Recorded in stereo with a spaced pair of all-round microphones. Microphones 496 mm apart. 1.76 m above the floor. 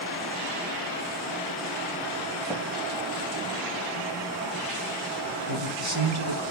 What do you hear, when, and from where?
2.5 s tapping: centre (ahead or behind), 2.5 m
5.5 s a man speaking: 45° right (ahead or behind), 1.9 m